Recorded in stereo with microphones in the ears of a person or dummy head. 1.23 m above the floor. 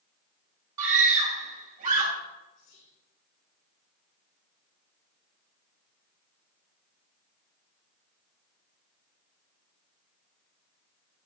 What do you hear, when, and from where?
0.8 s a scream: 45° right (ahead or behind), 2.5 m
2.5 s whispering: 45° left (ahead or behind), 3 m